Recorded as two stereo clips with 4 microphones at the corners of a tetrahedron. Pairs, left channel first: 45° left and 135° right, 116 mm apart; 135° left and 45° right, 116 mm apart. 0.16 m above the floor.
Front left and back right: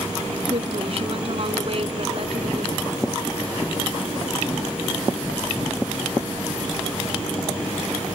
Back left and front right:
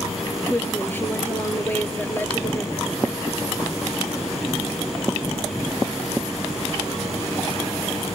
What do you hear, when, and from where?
0.5 s a woman speaking: 155° right, 3 m